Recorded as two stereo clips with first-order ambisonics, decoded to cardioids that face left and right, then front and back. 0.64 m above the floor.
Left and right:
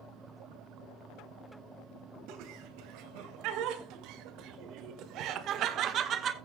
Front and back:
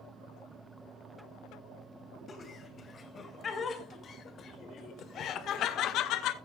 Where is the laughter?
70° right, 3 m; by 6.3 s 30° right, 1.1 m.